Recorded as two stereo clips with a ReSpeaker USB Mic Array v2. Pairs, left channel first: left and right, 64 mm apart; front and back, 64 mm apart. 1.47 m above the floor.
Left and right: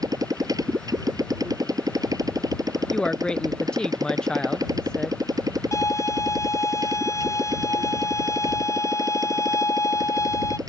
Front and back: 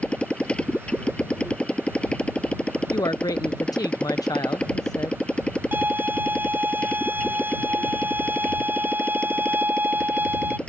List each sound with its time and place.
0.0 s a motorcycle: 70° right
2.9 s a woman speaking: 15° left
5.7 s a violin: 120° left